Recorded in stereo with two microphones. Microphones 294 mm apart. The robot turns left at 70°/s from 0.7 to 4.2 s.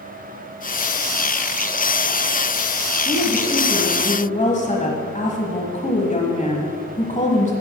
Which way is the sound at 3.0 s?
10° left (ahead or behind).